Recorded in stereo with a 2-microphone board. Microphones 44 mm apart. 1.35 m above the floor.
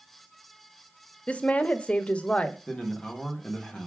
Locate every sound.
1.3 s a woman speaking: 30° left (ahead or behind), 0.7 m
2.7 s a man speaking: 20° left (ahead or behind), 1.5 m